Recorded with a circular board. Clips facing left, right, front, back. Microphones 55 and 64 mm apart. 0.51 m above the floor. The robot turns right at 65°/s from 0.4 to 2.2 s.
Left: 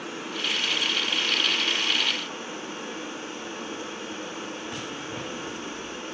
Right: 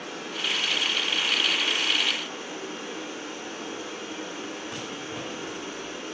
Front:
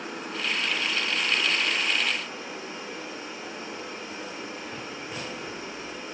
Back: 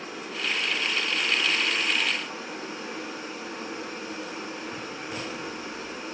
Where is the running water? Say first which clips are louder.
Left 1 dB, front 1 dB; 25° left, 4 m; by 6.1 s 140° left, 4 m.